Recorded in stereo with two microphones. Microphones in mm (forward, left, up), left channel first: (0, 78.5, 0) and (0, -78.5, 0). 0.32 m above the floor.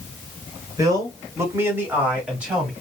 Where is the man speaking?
25° right (ahead or behind), 1.2 m; by 2.7 s 5° right (ahead or behind), 1.9 m.